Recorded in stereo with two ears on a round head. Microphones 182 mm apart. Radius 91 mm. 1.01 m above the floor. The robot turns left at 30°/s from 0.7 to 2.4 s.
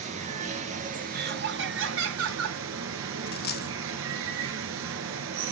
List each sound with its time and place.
0.0 s running water: 40° right, 2.5 m; by 5.5 s 90° right, 2.5 m
1.1 s laughter: 45° right, 3.5 m; by 2.6 s 85° right, 3.5 m
3.3 s a dropped coin: 50° left (ahead or behind), 0.9 m